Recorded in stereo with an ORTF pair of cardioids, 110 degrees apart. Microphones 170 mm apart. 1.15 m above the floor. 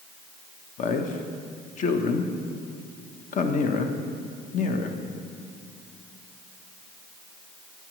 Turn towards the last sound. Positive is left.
turn(degrees=50)